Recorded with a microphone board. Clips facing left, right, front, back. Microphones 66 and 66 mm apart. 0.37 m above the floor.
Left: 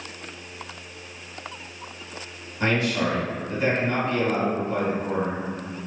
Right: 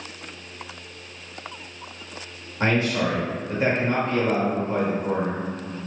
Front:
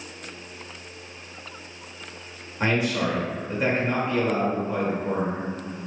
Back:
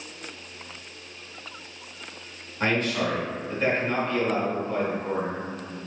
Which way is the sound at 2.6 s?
70° right.